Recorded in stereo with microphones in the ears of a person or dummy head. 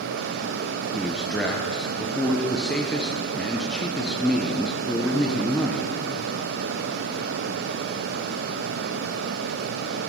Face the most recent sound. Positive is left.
turn(degrees=0)  # may be behind; listen again after turning